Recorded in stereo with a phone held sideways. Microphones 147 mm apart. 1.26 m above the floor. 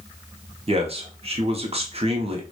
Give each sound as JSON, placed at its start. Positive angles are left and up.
{"t": 0.7, "sound": "a man speaking", "side_deg": -45, "distance_m": 0.6}